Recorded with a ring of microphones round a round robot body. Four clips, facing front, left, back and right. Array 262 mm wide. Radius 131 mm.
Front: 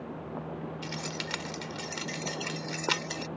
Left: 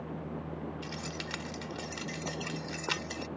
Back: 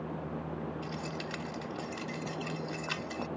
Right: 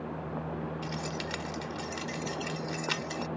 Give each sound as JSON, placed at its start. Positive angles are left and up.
{"t": 0.8, "sound": "keys jangling", "azimuth_deg": 0}